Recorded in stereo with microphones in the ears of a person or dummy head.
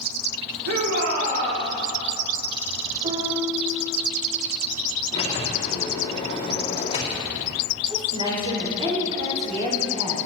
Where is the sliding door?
30° left (ahead or behind), 2 m.